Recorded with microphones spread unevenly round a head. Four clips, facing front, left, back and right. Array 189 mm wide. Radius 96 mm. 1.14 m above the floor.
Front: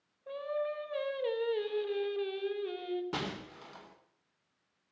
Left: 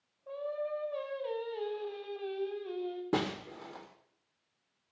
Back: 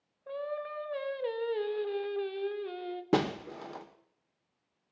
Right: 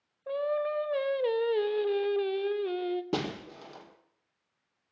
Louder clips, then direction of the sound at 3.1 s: Even, back 10 dB; straight behind.